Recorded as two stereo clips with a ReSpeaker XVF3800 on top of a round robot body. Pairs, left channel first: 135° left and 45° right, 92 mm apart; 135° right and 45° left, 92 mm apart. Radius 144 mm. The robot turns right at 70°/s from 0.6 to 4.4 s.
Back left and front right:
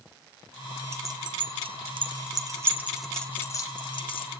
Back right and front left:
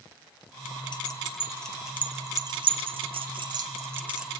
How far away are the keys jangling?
About 2 m.